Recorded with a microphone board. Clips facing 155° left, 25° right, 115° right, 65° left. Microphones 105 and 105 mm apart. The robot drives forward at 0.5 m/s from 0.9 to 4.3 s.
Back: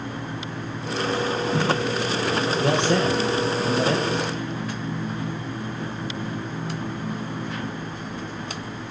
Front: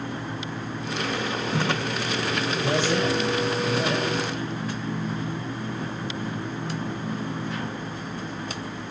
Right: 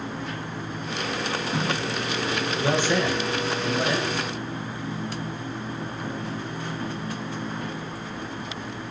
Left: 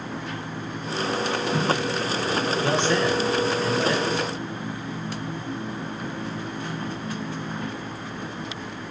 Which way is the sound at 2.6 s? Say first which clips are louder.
Back 2 dB, right 1 dB; 170° left.